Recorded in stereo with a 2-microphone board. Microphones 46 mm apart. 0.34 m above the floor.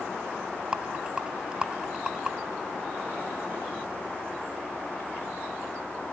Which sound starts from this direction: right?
A rattle, at 0.7 s.